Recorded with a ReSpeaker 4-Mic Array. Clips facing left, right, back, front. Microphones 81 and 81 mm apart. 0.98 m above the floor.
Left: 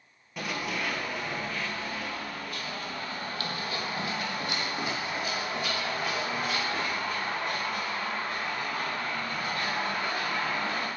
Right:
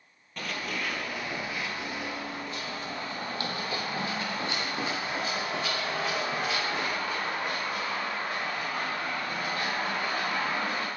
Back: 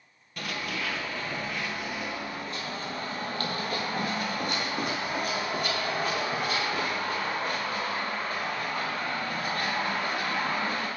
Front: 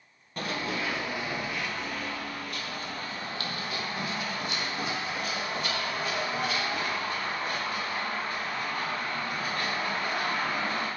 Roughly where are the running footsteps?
Ahead.